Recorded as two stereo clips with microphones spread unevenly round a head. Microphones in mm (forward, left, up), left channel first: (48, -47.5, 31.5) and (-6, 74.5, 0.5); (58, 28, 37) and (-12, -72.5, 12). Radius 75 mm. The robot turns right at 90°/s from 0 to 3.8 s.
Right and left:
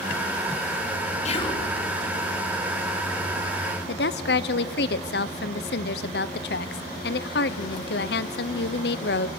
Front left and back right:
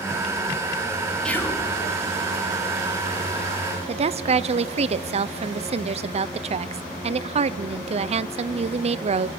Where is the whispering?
30° right, 3.5 m; by 1.7 s 10° left, 3.5 m.